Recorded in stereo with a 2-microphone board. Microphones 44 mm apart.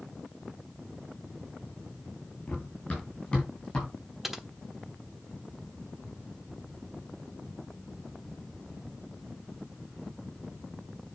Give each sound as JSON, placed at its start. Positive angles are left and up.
{"t": 2.5, "sound": "running footsteps", "side_deg": 25, "distance_m": 4.0}
{"t": 4.2, "sound": "typing on a keyboard", "side_deg": -10, "distance_m": 1.1}